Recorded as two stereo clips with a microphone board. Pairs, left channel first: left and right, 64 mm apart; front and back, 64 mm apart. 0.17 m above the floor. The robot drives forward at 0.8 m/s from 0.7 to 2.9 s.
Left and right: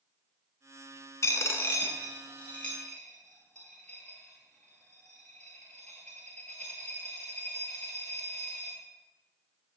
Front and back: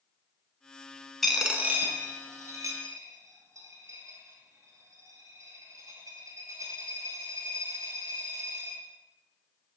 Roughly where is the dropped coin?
Left.